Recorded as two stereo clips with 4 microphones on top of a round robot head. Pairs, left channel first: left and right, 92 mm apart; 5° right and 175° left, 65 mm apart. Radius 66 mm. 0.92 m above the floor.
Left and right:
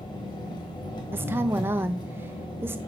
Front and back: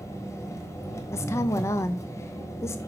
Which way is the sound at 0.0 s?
40° left.